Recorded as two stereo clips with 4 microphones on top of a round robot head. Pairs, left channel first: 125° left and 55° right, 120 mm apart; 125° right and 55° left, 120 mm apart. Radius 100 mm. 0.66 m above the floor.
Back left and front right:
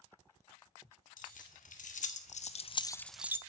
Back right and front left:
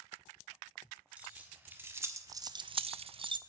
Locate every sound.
1.2 s keys jangling: 135° left, 1.6 m; by 3.4 s 10° left, 0.6 m